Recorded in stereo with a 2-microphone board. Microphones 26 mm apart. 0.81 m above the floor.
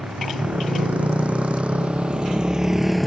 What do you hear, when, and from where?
0.0 s a motorcycle: 70° right (ahead or behind); by 3.1 s 10° left (ahead or behind)